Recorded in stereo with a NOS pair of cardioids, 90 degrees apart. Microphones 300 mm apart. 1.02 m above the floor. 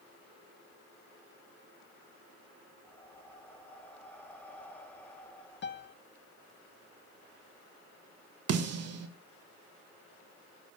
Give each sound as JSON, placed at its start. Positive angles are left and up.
{"t": 2.8, "sound": "breathing", "azimuth_deg": 5, "distance_m": 2.5}
{"t": 5.6, "sound": "a piano", "azimuth_deg": 35, "distance_m": 0.7}
{"t": 8.5, "sound": "a snare drum", "azimuth_deg": -55, "distance_m": 1.6}